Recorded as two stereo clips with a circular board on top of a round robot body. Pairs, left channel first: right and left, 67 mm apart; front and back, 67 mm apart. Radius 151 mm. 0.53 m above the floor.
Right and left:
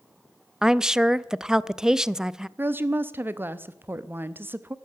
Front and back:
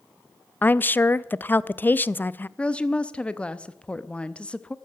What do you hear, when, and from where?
0.6 s a woman speaking: 20° left, 0.6 m
2.6 s a woman speaking: 65° left, 0.9 m